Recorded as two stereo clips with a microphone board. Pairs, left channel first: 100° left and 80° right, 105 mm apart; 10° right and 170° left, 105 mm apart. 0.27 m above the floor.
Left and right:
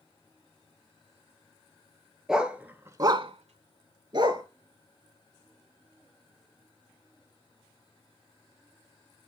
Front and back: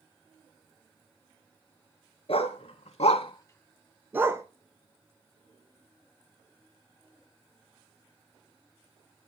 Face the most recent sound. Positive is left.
turn(degrees=-125)